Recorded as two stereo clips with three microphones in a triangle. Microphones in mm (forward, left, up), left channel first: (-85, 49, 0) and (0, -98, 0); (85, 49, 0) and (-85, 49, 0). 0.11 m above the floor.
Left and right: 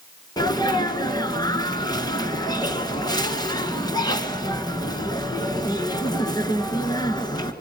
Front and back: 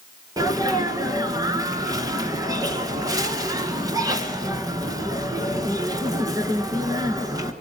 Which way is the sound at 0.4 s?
145° left.